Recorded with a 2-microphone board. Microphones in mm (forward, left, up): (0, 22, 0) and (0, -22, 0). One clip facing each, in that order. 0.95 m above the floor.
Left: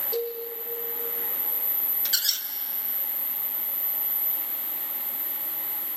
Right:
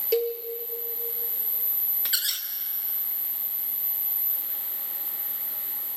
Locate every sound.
0.1 s a cowbell: 80° right, 4.5 m
2.0 s a squeak: 10° right (ahead or behind), 1.2 m